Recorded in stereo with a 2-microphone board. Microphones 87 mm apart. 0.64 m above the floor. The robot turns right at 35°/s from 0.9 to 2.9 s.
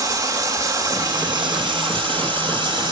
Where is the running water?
135° right, 2 m; by 2.9 s 65° right, 2 m.